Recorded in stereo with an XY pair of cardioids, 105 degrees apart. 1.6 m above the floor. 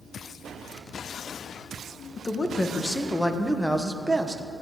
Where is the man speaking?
30° left, 1.7 m; by 4.4 s 15° right, 1.3 m.